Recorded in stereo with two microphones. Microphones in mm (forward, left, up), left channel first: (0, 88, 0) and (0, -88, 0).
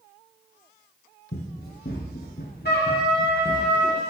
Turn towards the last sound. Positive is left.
turn(degrees=70)  # may be behind; listen again after turning